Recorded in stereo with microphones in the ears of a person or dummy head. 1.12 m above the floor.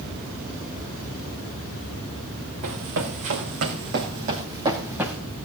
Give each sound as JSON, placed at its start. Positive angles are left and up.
{"t": 2.6, "sound": "running footsteps", "side_deg": -60, "distance_m": 3.5}